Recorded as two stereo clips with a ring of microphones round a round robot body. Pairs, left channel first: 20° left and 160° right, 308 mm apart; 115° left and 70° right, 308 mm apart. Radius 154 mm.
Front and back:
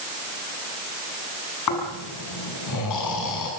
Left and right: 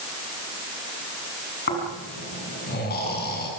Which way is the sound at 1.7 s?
50° left.